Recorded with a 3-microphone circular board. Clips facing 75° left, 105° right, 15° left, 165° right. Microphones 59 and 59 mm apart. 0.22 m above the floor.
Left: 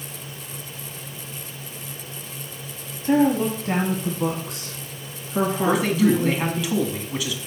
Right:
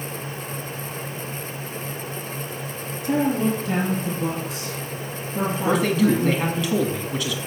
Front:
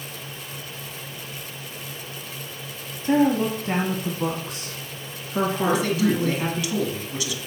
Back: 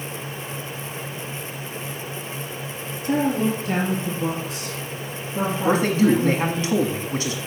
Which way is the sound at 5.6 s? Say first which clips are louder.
Right 1 dB, back 6 dB; 160° left.